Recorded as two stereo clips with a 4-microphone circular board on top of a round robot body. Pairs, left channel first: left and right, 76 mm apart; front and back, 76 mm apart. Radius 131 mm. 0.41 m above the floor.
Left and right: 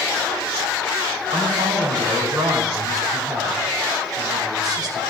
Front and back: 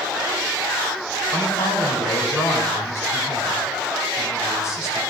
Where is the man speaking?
50° right, 5.5 m.